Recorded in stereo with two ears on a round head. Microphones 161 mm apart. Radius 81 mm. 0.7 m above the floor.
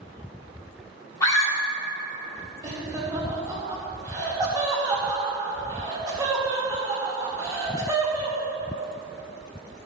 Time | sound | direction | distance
1.2 | a scream | 20° left (ahead or behind) | 3 m
2.6 | laughter | 20° right (ahead or behind) | 2.5 m